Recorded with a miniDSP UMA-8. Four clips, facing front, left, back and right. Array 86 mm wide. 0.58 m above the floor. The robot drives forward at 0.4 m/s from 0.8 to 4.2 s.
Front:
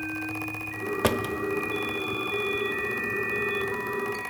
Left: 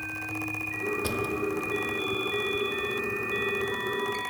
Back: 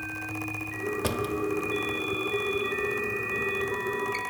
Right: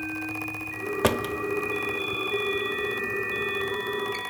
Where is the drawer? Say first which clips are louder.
Right 7 dB, front 3 dB; 55° right, 0.7 m; by 4.2 s 145° right, 1.1 m.